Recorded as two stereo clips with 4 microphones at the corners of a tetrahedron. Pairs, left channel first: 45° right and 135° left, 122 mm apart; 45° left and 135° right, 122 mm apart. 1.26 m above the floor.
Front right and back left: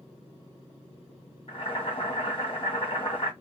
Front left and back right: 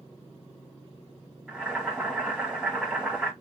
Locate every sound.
1.5 s boiling: 60° right, 1.3 m